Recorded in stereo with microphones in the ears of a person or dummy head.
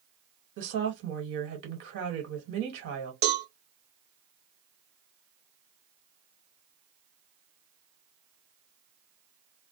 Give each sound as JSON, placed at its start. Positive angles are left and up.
{"t": 0.6, "sound": "a woman speaking", "side_deg": -65, "distance_m": 1.4}
{"t": 3.2, "sound": "a cowbell", "side_deg": -55, "distance_m": 0.7}